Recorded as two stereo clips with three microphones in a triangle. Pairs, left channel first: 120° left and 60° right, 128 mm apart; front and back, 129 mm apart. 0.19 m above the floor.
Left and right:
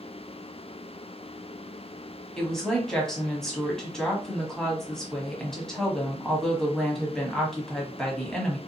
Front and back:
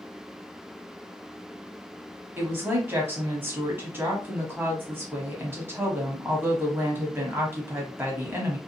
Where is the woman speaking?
160° right, 1.0 m.